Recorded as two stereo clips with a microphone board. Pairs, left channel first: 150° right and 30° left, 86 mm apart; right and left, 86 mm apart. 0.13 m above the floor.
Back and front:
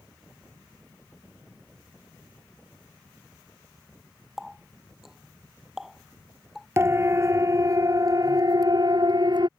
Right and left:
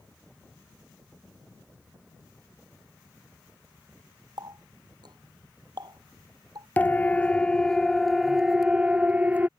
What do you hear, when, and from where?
4.4 s a running tap: 115° left
6.8 s a siren: 25° right; by 9.5 s 25° left